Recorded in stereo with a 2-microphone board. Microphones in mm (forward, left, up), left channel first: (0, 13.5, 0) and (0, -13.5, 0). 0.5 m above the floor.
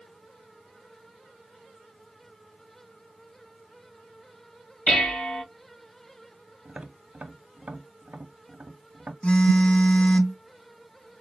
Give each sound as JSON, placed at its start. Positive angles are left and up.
{"t": 4.9, "sound": "dishes clattering", "side_deg": 60, "distance_m": 3.0}
{"t": 6.7, "sound": "tapping", "side_deg": -70, "distance_m": 0.9}
{"t": 9.2, "sound": "a phone buzzing", "side_deg": 45, "distance_m": 0.5}